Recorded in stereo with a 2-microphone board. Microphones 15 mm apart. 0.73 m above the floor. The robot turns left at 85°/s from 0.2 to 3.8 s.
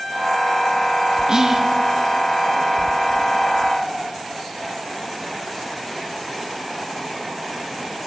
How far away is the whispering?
About 0.5 m.